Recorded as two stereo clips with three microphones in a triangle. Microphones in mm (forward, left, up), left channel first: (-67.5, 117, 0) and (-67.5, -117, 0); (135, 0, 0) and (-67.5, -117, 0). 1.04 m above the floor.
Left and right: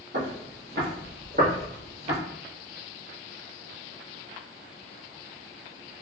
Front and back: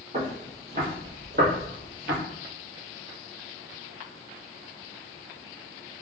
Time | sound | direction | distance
0.1 | footsteps | 95° right | 1.6 m